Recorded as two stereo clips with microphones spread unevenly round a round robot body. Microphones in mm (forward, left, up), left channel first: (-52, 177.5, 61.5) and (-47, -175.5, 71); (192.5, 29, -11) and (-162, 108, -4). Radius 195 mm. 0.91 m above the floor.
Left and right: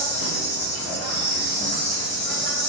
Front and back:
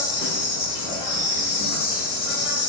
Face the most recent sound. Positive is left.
turn(degrees=65)